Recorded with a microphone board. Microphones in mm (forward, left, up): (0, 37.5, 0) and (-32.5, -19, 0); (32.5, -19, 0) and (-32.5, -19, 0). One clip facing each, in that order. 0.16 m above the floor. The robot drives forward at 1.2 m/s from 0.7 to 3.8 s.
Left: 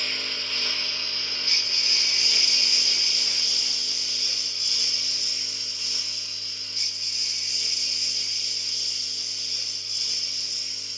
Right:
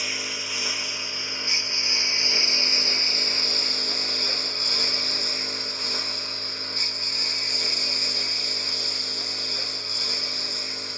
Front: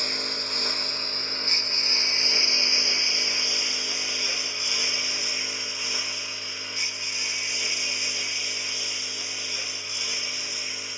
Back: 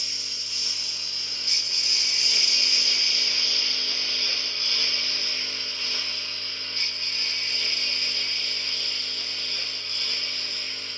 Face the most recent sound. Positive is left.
turn(degrees=-80)